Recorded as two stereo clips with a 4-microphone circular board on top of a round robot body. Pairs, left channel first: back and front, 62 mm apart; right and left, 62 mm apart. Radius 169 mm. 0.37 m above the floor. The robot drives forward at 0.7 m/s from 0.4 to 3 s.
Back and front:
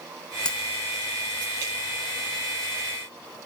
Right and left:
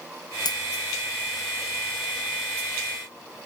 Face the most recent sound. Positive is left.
turn(degrees=-120)